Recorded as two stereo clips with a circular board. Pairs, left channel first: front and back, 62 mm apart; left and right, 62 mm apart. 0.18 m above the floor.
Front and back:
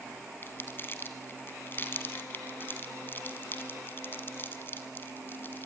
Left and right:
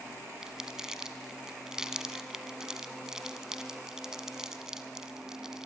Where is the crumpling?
15° right, 1.7 m.